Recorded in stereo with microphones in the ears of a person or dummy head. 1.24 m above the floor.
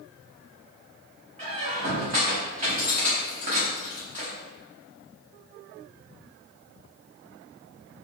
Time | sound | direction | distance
1.4 | a squeak | 45° right (ahead or behind) | 1.0 m